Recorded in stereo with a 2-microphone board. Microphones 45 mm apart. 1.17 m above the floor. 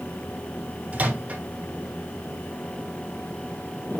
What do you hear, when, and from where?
0.9 s a microwave: 35° right (ahead or behind), 3 m